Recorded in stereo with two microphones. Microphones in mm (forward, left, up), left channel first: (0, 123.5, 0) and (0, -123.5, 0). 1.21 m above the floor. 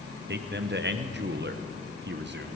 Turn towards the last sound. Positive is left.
turn(degrees=-45)  # may be behind; listen again after turning